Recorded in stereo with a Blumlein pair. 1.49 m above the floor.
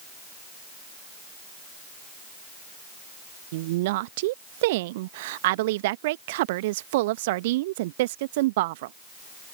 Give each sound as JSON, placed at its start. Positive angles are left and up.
{"t": 3.5, "sound": "a woman speaking", "azimuth_deg": -50}